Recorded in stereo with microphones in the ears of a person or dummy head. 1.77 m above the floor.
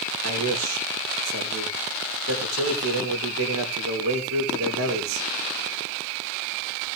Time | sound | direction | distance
0.2 | a man speaking | 85° right | 3.5 m